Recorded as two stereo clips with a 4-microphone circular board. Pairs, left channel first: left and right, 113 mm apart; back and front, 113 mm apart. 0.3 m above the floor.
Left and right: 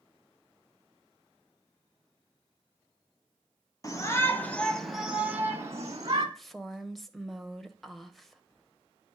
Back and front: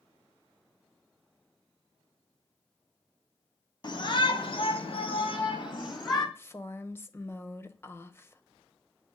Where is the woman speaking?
175° left, 1.0 m.